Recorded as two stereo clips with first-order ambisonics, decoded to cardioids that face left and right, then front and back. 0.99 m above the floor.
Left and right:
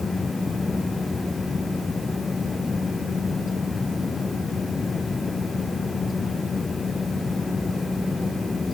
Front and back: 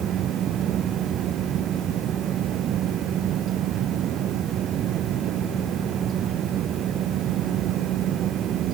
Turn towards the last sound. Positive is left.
No sound to turn to.